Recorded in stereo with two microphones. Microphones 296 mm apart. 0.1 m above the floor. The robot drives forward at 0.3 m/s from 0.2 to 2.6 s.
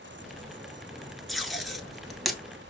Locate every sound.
1.3 s tape being pulled: centre (ahead or behind), 0.5 m